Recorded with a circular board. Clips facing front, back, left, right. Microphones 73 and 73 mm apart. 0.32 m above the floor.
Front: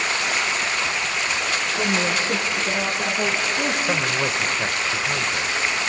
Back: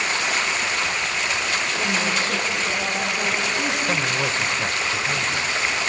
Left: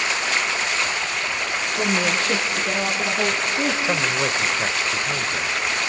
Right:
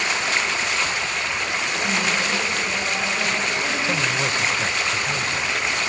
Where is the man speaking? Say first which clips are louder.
Even, left 1 dB; 65° left, 0.9 m.